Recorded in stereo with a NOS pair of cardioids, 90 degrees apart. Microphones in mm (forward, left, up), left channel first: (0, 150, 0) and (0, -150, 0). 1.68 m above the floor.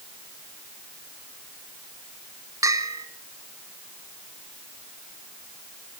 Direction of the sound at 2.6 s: 10° right.